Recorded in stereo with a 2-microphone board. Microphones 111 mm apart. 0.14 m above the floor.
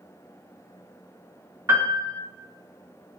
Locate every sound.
1.7 s a piano: 25° right (ahead or behind), 1.7 m